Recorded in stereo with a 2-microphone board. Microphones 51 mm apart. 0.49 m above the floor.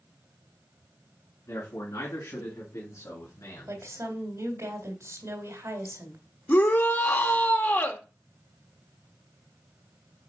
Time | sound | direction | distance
1.5 | a man speaking | 75° left (ahead or behind) | 4 m
3.7 | a woman speaking | 70° right (ahead or behind) | 2 m
6.5 | a shout | 40° left (ahead or behind) | 1.2 m